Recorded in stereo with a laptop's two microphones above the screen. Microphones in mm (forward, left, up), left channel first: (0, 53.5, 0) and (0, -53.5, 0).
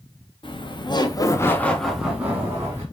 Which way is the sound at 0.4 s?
50° left (ahead or behind).